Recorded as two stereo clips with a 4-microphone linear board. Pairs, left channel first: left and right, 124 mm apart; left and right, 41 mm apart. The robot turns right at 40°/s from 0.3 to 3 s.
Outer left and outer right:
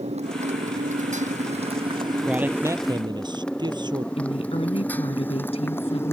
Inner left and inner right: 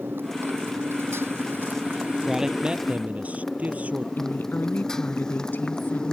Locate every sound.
0.0 s a motorcycle: 60° right (ahead or behind); by 6.1 s 20° left (ahead or behind)
2.2 s a man speaking: 175° right; by 4.1 s 145° right
4.2 s a woman speaking: 55° left (ahead or behind)